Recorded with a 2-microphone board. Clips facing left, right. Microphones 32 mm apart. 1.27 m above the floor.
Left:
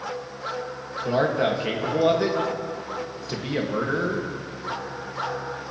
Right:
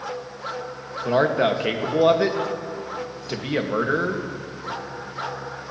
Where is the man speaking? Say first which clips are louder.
Right 3 dB; 20° right (ahead or behind), 1.4 m.